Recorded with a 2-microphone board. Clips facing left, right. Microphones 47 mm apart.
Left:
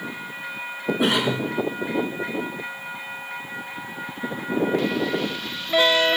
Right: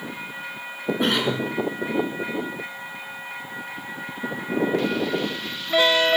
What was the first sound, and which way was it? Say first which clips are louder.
A cough: left 1 dB; 5° left (ahead or behind).